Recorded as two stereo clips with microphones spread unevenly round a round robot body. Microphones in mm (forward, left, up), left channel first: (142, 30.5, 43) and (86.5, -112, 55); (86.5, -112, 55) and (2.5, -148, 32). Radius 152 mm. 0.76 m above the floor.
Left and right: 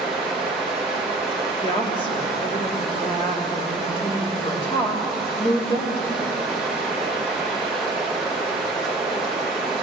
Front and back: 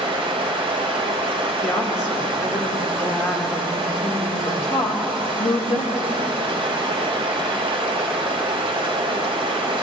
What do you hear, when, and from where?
0.0 s running water: 160° left, 1.2 m
1.6 s a woman speaking: 15° left, 2.5 m